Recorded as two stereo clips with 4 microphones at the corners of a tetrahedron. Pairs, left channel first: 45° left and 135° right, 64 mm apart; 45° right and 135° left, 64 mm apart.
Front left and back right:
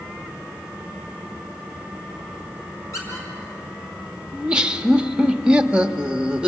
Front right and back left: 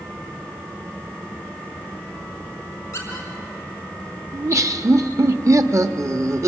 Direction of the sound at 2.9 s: 5° left.